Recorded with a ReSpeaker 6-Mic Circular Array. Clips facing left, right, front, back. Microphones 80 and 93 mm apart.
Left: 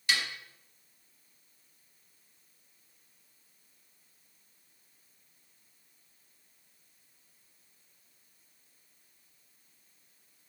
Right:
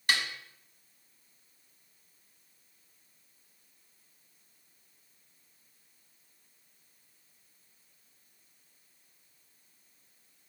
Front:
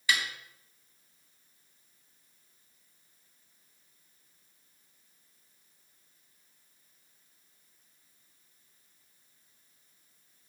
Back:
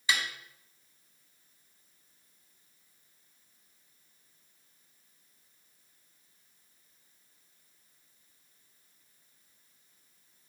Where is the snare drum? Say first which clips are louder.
Right 1 dB, front 1 dB; 115° right, 0.9 m.